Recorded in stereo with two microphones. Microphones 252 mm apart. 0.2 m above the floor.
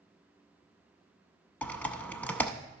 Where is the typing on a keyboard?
5° left (ahead or behind), 0.6 m.